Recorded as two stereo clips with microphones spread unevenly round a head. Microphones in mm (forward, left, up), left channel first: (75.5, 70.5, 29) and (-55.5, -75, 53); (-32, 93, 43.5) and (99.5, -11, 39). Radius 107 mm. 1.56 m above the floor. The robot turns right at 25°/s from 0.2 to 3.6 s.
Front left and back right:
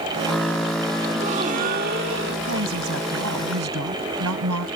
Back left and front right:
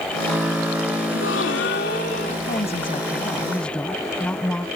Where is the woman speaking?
160° right; by 4.7 s 135° right.